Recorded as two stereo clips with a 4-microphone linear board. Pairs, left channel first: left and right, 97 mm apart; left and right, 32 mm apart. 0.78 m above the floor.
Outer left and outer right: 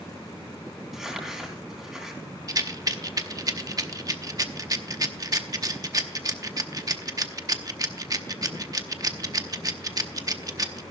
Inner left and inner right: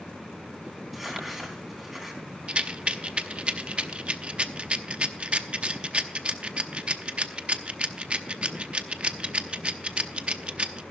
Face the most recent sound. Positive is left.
turn(degrees=-40)  # may be behind; listen again after turning